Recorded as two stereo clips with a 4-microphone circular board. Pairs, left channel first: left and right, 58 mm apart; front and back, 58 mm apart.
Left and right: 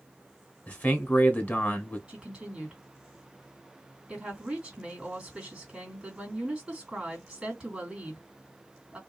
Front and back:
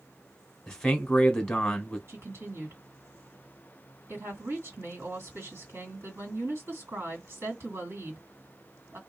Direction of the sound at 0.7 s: 70° left.